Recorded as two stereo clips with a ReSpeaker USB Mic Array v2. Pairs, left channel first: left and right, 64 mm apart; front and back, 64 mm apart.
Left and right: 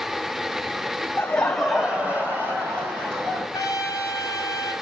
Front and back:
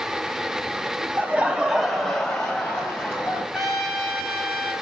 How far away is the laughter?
About 1.5 m.